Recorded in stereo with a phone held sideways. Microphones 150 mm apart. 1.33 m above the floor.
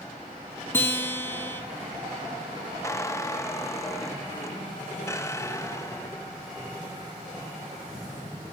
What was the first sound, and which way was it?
A guitar, 15° left (ahead or behind).